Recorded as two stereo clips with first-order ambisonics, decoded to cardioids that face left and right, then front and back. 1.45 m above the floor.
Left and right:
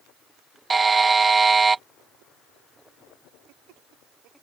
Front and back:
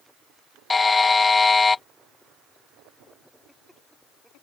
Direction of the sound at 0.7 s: 45° right.